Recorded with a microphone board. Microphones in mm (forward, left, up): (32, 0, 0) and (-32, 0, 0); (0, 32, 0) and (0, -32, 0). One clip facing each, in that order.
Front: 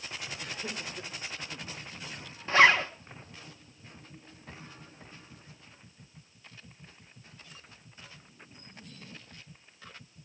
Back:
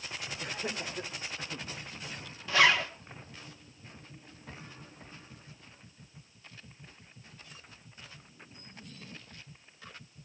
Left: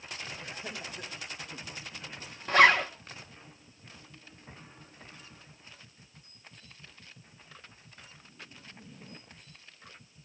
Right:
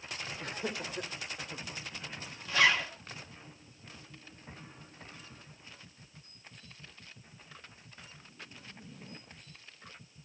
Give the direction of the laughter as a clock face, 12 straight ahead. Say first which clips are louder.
Back 4 dB, right 3 dB; 4 o'clock.